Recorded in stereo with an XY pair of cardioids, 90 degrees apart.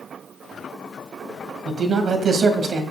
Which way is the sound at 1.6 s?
55° right.